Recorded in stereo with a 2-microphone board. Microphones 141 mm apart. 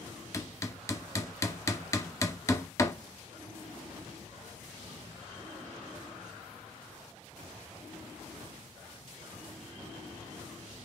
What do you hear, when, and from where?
0.3 s hammering: 20° left (ahead or behind), 0.6 m